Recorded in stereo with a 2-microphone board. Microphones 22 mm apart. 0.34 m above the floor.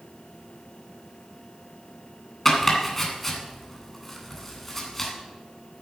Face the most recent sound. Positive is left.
turn(degrees=10)  # may be behind; listen again after turning